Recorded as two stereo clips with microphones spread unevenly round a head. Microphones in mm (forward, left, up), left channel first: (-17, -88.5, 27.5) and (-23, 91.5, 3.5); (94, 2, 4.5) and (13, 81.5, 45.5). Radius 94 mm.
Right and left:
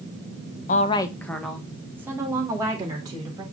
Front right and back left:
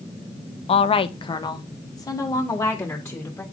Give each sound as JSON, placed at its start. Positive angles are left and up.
{"t": 0.7, "sound": "a woman speaking", "azimuth_deg": -40, "distance_m": 0.5}